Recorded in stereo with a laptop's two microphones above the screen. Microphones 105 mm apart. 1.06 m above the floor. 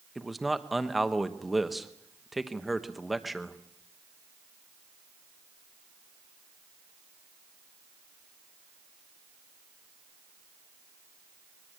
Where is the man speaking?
Centre (ahead or behind), 1.1 m.